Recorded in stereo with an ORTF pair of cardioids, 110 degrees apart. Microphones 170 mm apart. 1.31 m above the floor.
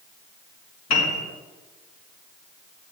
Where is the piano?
55° left, 2.5 m.